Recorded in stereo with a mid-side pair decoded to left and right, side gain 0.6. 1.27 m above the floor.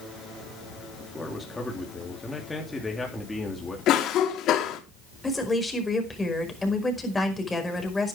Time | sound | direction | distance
1.0 | a man speaking | 15° left | 3.5 m
3.9 | a cough | 55° left | 2.5 m
5.2 | a woman speaking | 15° left | 5 m